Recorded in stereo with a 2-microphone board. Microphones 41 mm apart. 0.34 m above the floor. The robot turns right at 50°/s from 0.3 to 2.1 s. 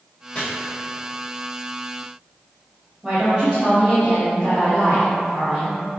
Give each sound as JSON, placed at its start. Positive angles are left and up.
{"t": 0.3, "sound": "chopping", "side_deg": 30, "distance_m": 1.4}
{"t": 3.0, "sound": "a woman speaking", "side_deg": -20, "distance_m": 1.9}